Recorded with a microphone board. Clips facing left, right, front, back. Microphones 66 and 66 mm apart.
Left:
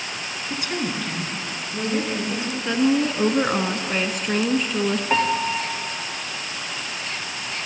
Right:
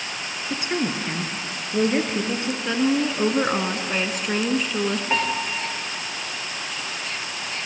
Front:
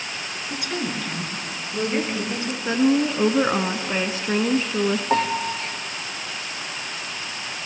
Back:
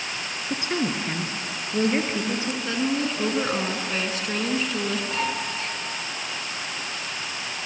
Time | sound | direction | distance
0.5 | a woman speaking | 145° right | 1.9 m
2.6 | a woman speaking | straight ahead | 1.1 m
5.1 | a piano | 10° left | 2 m